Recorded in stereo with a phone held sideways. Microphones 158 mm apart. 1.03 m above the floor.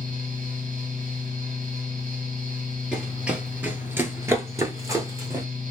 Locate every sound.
0.0 s a fan: 60° right (ahead or behind), 1.3 m
2.9 s running footsteps: 5° right (ahead or behind), 1.3 m; by 5.5 s 20° right (ahead or behind), 1.3 m